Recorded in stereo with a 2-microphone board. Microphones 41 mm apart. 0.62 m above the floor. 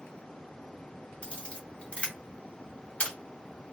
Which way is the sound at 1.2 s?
30° left (ahead or behind).